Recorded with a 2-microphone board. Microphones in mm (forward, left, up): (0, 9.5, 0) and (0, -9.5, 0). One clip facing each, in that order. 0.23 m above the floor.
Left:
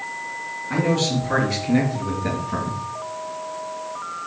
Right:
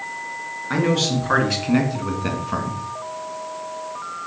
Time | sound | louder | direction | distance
0.7 | a man speaking | right 1 dB | 60° right (ahead or behind) | 3.5 m